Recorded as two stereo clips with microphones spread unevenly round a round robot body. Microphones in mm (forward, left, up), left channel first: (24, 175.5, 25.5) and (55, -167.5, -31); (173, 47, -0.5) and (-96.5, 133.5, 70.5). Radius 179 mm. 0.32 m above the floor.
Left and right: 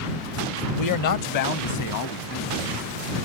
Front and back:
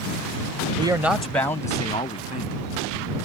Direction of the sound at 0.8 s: 80° left.